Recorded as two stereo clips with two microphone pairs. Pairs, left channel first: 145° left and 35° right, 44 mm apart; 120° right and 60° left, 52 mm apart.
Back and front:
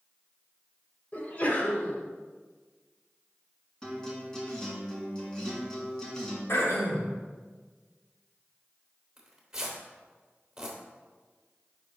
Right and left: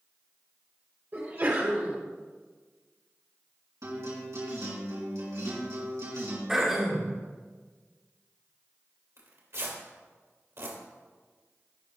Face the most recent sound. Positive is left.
turn(degrees=40)